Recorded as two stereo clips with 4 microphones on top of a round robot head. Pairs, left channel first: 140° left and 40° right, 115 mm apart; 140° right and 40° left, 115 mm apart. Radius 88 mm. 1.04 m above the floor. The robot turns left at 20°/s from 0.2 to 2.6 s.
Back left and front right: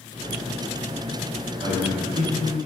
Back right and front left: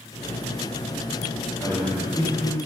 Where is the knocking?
I don't hear knocking.